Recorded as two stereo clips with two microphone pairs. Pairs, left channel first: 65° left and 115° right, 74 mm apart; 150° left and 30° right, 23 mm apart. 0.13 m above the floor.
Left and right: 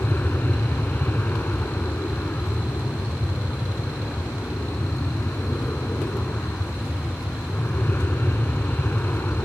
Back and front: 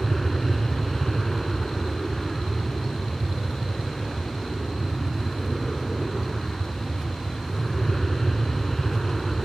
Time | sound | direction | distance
0.0 | an aircraft | 80° left | ?